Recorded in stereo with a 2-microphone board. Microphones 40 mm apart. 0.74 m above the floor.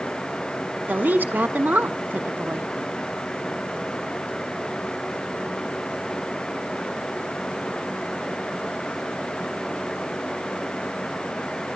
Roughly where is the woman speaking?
Right.